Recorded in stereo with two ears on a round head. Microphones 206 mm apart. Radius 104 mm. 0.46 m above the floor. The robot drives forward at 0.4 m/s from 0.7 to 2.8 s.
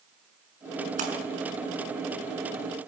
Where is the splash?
35° right (ahead or behind), 6 m.